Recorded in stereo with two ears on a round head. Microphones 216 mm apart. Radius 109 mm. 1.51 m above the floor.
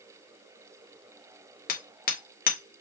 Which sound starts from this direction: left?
Hammering, at 1.7 s.